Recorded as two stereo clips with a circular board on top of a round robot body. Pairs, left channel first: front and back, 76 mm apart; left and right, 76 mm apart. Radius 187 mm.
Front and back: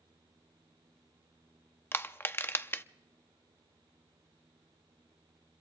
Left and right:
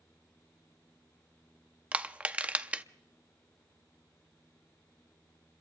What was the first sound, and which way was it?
Crushing, 30° right.